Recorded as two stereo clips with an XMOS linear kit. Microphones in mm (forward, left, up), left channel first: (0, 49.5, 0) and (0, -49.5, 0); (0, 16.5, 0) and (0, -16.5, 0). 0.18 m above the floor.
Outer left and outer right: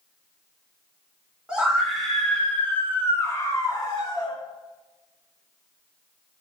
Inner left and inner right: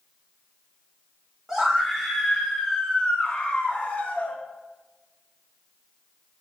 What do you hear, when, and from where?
1.5 s a scream: 10° right (ahead or behind), 1.4 m; by 4.4 s 50° left (ahead or behind), 1.6 m